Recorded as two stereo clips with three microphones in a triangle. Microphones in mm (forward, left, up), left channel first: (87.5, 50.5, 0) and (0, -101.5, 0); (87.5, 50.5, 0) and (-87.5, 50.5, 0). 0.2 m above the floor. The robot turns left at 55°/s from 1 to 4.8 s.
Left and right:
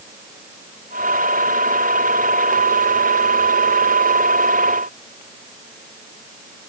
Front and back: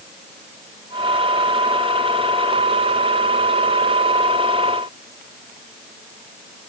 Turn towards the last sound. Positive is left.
No sound to turn to.